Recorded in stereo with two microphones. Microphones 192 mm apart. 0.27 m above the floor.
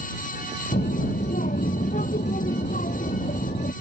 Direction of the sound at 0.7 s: 45° left (ahead or behind).